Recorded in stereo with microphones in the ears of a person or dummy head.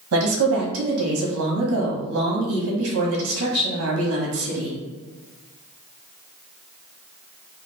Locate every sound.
0.1 s a woman speaking: 65° right (ahead or behind), 1.3 m